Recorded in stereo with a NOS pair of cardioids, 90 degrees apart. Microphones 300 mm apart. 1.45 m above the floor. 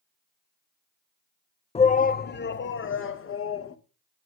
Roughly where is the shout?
Ahead.